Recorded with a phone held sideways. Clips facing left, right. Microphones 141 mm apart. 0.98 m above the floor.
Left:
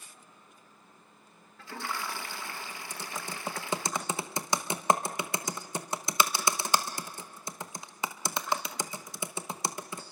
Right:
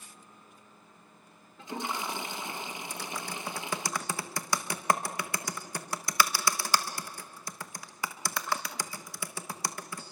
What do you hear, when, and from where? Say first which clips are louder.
1.6 s a toilet flushing: right 2 dB; 20° right (ahead or behind), 0.6 m
2.9 s typing on a keyboard: right 1 dB; 20° left (ahead or behind), 1.1 m